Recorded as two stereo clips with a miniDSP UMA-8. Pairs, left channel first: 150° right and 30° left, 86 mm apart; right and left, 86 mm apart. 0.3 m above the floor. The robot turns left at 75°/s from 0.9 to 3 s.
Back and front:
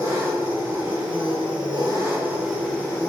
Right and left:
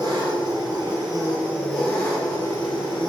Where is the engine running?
65° left, 1.9 m; by 3.1 s 95° right, 1.9 m.